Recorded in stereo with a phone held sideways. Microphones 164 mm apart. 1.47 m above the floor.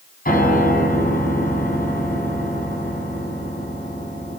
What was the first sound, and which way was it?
A piano, 60° left (ahead or behind).